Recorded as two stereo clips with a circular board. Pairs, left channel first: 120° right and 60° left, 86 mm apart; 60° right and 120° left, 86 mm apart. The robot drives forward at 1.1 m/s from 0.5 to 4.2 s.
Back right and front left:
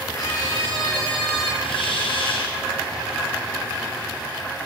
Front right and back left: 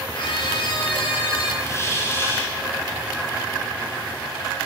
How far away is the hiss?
About 7 m.